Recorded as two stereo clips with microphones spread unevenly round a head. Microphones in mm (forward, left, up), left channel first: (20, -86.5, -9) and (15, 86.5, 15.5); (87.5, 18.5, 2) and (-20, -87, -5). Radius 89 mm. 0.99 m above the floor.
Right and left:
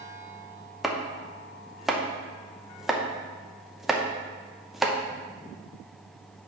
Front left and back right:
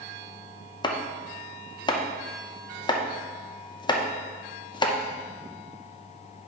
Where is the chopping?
5° right, 0.8 m.